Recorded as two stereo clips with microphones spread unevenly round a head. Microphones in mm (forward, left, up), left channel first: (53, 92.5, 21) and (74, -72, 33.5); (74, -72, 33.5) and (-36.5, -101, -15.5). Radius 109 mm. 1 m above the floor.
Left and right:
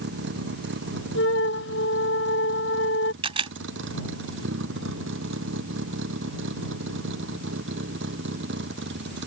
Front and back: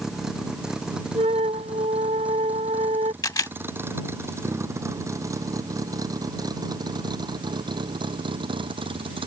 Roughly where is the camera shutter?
Ahead right.